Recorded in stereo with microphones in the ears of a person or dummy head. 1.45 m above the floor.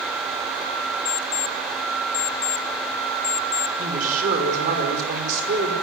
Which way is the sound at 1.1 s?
60° left (ahead or behind).